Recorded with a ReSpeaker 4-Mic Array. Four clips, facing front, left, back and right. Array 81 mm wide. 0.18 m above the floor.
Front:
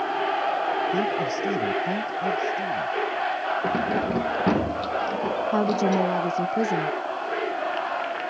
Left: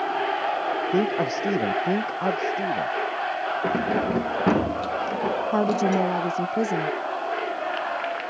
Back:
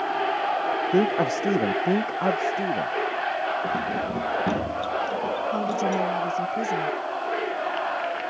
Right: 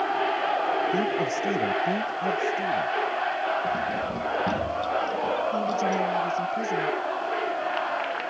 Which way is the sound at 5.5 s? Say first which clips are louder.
Left 4 dB, front 5 dB; 55° left.